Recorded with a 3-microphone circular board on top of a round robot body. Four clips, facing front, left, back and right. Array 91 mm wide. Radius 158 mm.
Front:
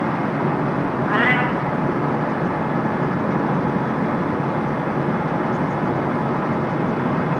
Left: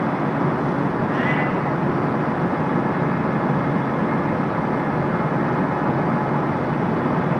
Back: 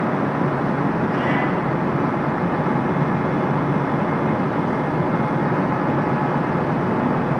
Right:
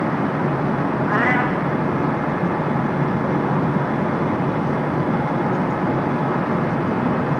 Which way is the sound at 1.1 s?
55° right.